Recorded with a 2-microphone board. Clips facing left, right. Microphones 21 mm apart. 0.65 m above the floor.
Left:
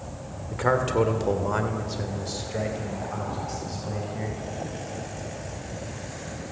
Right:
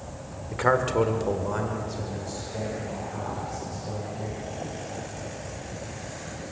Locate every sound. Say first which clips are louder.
0.5 s a man speaking: even; 20° right (ahead or behind), 2.0 m; by 4.4 s 55° left (ahead or behind), 5 m